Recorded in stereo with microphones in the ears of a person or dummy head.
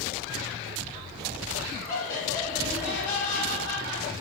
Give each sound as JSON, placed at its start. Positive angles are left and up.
{"t": 1.9, "sound": "laughter", "side_deg": 50, "distance_m": 1.8}